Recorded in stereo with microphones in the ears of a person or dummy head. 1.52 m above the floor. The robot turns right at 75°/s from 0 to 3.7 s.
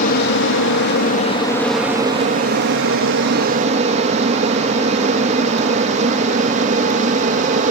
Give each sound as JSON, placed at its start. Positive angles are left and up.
{"t": 0.0, "sound": "an aircraft", "side_deg": 40}